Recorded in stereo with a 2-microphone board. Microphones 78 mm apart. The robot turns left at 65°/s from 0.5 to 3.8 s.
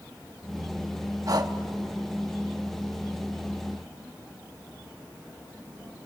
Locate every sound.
1.3 s breathing: 50° right (ahead or behind), 1.0 m; by 1.5 s 65° right (ahead or behind), 1.0 m